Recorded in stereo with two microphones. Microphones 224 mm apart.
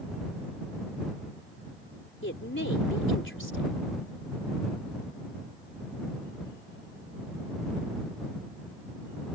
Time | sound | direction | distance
2.2 | a woman speaking | 65° left (ahead or behind) | ?